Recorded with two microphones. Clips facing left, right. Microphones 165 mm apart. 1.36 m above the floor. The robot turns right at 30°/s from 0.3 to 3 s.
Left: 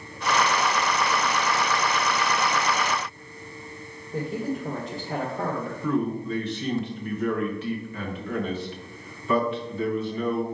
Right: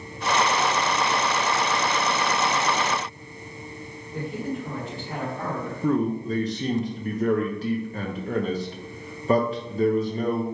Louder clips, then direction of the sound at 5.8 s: Right 3 dB; 40° right (ahead or behind).